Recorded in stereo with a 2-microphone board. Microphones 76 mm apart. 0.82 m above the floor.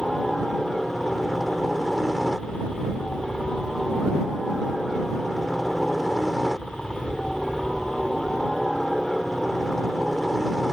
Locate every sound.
0.0 s a helicopter: centre (ahead or behind)